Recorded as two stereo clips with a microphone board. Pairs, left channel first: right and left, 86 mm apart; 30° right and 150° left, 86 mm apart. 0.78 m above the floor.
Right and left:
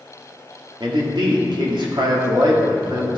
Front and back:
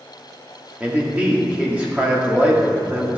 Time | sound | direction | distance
0.8 | a man speaking | 80° left | 1.6 m